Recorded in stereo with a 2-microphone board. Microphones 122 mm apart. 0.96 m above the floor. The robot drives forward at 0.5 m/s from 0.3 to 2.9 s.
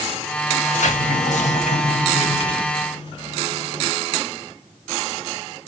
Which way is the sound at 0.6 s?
75° left (ahead or behind).